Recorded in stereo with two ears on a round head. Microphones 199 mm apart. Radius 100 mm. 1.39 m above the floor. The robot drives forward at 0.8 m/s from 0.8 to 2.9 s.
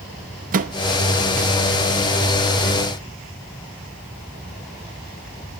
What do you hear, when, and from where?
0.5 s a microwave: 40° right (ahead or behind), 0.6 m